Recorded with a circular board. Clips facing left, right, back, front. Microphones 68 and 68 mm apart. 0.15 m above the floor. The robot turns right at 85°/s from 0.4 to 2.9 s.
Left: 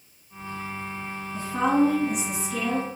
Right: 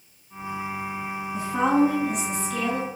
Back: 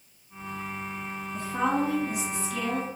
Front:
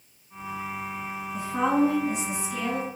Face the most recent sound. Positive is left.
turn(degrees=65)